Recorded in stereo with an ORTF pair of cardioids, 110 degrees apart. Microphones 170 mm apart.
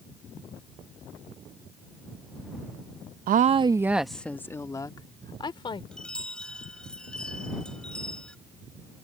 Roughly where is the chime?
Ahead.